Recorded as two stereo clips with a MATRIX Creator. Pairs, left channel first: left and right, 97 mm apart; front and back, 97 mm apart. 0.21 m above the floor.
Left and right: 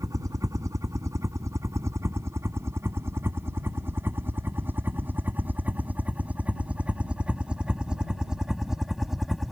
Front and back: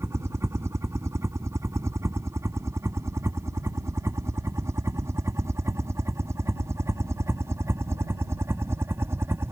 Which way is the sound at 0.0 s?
130° right.